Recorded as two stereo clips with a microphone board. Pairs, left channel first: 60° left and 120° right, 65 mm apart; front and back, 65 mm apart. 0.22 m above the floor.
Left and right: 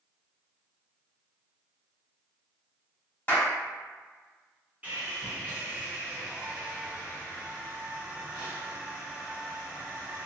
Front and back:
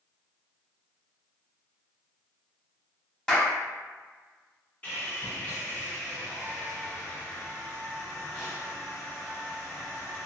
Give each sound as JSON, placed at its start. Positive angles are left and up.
{"t": 3.3, "sound": "a clap", "azimuth_deg": 60, "distance_m": 1.0}
{"t": 4.8, "sound": "sawing", "azimuth_deg": -55, "distance_m": 1.5}